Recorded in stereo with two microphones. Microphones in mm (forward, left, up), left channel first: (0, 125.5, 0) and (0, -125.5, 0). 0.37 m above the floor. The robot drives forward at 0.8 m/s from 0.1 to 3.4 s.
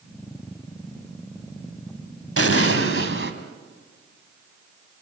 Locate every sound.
2.4 s an explosion: 65° right (ahead or behind), 1.8 m; by 3.3 s 50° right (ahead or behind), 2 m